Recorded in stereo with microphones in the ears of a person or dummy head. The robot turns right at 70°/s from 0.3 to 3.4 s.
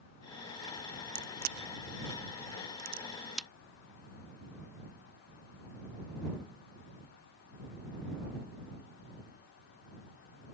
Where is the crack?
20° right (ahead or behind); by 3.5 s centre (ahead or behind).